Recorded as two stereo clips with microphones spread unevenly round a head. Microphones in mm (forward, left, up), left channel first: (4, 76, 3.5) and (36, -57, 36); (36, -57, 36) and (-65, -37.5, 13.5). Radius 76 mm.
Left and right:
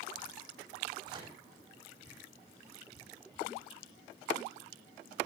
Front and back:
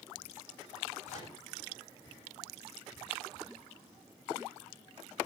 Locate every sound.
1.1 s a microwave: 20° right, 6 m